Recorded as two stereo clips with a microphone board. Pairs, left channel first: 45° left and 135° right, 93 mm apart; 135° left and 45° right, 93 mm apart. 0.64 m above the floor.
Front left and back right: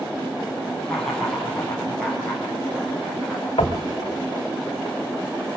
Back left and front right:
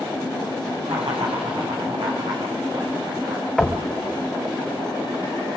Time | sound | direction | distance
0.8 | laughter | 35° right | 7 m
3.6 | knocking | 45° left | 2.5 m